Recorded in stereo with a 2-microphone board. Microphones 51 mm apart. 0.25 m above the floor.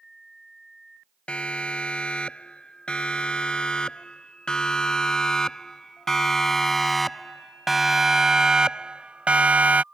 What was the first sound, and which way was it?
A siren, 20° left (ahead or behind).